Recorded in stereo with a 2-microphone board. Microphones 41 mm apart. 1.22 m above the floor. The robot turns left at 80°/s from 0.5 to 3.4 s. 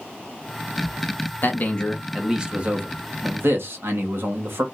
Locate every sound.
1.4 s a man speaking: 55° left, 1.2 m; by 4.6 s 100° right, 1.2 m